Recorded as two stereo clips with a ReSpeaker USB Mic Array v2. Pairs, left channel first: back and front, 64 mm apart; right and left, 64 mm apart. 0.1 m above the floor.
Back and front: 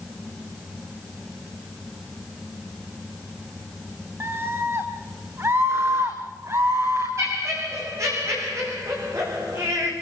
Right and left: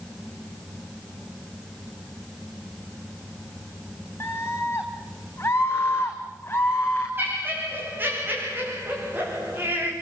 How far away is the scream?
About 4.5 m.